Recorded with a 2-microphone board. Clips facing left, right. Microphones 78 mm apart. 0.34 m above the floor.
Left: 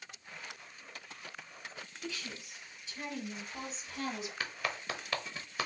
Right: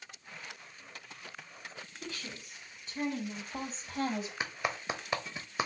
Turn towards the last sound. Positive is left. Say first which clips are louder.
# right 3 dB
turn(degrees=-20)  # may be behind; listen again after turning